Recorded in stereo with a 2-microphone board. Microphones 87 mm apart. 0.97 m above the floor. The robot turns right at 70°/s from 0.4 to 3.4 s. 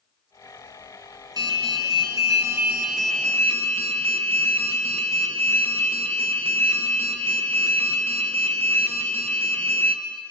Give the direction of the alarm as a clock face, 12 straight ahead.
4 o'clock.